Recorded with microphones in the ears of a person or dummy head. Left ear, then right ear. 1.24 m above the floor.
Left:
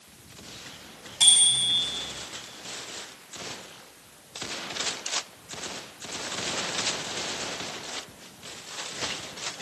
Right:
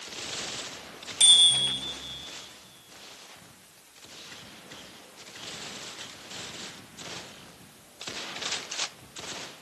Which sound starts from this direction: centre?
A bicycle bell, at 1.2 s.